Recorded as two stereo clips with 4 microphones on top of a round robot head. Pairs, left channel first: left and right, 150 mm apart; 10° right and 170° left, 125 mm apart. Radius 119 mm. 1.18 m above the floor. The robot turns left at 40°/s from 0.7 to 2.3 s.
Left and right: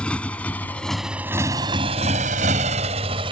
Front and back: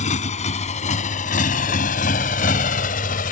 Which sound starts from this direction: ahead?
A motorcycle, at 0.0 s.